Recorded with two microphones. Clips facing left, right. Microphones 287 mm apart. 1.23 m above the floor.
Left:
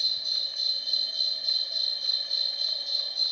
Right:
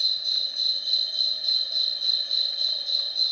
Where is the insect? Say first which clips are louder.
Even; 5° right (ahead or behind), 0.8 m.